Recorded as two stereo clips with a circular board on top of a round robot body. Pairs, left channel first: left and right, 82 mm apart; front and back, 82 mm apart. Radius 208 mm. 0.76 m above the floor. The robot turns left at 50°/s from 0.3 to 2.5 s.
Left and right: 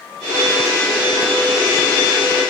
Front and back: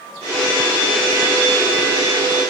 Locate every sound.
Only background noise.